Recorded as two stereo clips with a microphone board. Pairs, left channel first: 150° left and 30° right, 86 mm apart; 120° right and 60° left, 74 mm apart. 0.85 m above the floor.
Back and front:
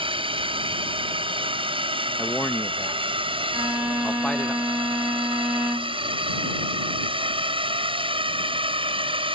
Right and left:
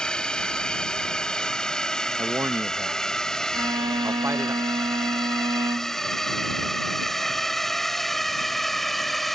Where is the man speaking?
90° left.